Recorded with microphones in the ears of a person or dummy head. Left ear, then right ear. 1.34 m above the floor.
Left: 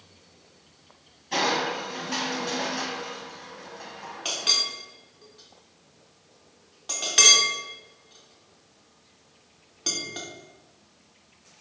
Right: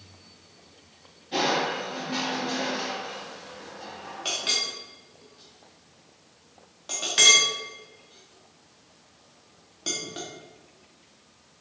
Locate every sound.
1.3 s crushing: 45° left (ahead or behind), 0.9 m
4.2 s a clink: 10° left (ahead or behind), 0.8 m